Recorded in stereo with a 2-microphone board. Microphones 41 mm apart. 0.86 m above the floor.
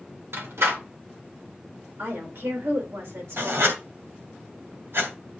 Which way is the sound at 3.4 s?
75° right (ahead or behind).